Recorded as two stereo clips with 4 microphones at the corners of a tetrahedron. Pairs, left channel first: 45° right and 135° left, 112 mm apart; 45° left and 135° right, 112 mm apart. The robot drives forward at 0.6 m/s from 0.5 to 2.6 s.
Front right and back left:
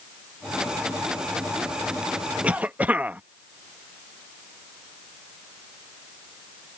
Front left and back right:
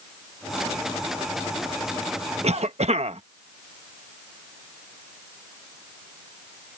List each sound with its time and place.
2.4 s a cough: 145° right; by 3.2 s 150° right